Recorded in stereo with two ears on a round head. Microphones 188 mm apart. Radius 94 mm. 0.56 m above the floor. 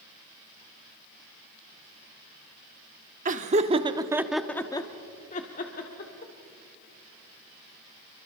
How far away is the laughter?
About 1.2 m.